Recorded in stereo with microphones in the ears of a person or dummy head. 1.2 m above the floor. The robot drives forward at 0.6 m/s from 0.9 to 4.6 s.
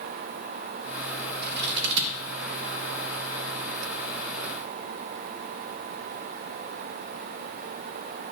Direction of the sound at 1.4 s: 55° right (ahead or behind).